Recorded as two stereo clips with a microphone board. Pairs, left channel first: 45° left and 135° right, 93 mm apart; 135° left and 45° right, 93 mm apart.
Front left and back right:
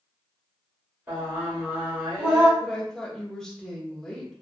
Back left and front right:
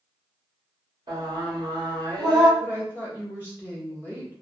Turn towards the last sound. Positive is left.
turn(degrees=-30)